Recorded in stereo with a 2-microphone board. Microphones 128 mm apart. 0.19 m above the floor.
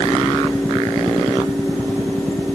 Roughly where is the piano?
No piano in this recording.